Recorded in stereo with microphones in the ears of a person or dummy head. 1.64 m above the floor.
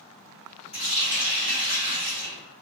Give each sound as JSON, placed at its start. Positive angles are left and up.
{"t": 0.7, "sound": "a running tap", "side_deg": 35, "distance_m": 1.4}